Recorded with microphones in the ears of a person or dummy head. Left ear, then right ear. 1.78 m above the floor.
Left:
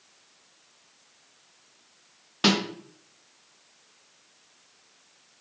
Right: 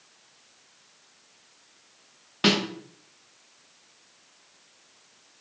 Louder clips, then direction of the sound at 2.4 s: Even; 10° left (ahead or behind).